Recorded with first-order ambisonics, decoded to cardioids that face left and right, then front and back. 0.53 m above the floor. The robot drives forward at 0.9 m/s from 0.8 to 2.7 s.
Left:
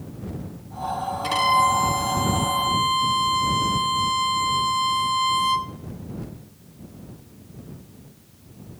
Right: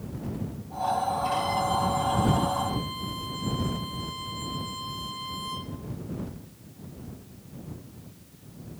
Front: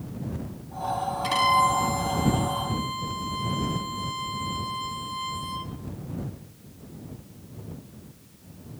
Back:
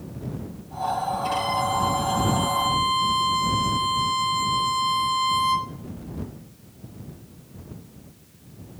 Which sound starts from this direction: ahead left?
A violin, at 1.2 s.